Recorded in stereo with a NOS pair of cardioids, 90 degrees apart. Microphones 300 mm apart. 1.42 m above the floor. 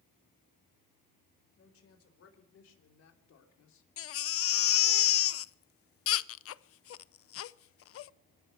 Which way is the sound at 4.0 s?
50° left.